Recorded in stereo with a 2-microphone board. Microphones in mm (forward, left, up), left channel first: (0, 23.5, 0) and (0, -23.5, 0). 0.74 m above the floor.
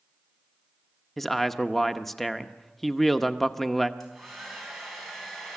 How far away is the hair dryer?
About 4 m.